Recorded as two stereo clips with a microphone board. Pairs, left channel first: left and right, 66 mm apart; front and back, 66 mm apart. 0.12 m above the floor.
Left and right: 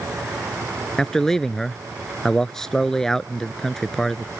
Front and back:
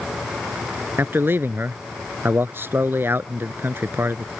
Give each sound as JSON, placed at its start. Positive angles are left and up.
{"t": 1.0, "sound": "a man speaking", "azimuth_deg": 170}